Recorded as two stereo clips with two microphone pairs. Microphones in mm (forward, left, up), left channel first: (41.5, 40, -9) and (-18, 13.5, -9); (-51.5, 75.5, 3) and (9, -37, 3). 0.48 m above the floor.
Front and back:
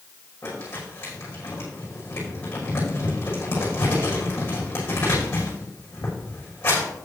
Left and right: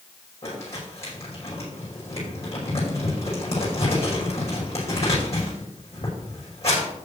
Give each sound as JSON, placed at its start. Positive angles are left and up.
{"t": 0.4, "sound": "crumpling", "azimuth_deg": 80, "distance_m": 6.0}